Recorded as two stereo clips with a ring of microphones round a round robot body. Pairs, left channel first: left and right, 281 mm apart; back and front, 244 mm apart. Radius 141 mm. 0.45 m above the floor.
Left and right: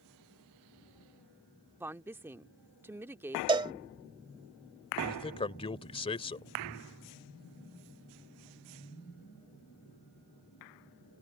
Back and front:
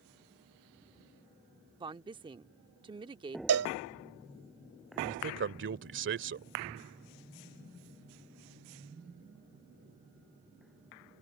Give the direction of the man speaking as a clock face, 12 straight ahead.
11 o'clock.